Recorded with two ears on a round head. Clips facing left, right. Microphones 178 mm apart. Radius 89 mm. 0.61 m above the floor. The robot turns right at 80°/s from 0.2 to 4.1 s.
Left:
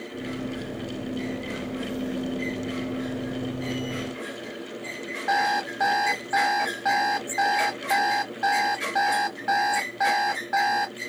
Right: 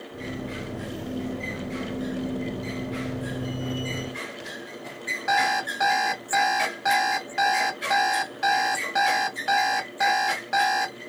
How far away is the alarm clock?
About 1.8 m.